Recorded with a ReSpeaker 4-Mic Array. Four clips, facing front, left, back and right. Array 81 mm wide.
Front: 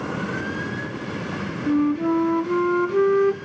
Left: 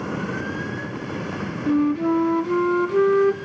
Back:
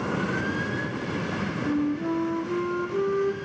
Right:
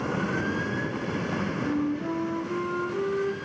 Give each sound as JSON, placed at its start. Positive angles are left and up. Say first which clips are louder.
{"t": 1.7, "sound": "a flute", "louder": "left 11 dB, front 7 dB", "azimuth_deg": 40, "distance_m": 0.5}